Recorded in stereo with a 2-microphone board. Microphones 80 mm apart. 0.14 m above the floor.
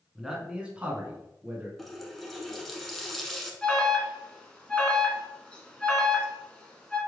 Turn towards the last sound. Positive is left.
turn(degrees=15)  # may be behind; listen again after turning